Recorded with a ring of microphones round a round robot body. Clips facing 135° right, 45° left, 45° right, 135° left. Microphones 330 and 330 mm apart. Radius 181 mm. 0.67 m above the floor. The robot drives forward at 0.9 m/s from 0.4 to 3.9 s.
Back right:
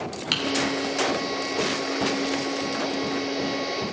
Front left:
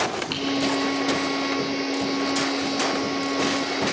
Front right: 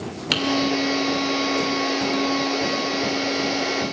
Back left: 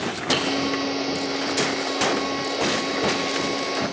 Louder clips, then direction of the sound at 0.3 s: Front left 2 dB, back left 1 dB; 80° right.